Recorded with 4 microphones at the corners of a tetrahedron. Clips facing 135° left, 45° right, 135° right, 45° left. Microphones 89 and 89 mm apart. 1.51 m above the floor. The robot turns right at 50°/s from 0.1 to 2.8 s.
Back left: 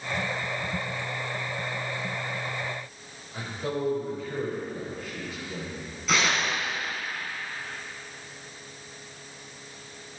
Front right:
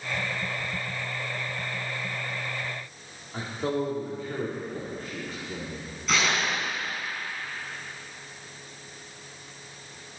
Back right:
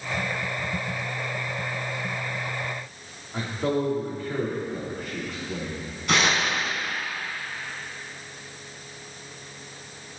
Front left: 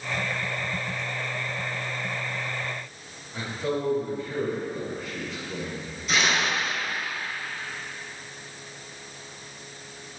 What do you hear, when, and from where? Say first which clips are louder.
3.3 s a man speaking: front right 3 dB, back right 3 dB; 95° right, 4.5 m
6.1 s tearing paper: even, back right 2 dB; 135° right, 3.5 m